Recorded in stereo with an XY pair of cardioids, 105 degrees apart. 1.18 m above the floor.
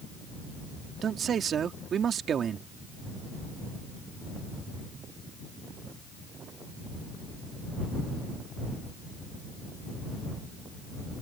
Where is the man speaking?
55° right.